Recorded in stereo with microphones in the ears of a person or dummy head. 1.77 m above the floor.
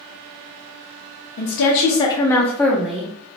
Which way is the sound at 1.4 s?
45° left (ahead or behind).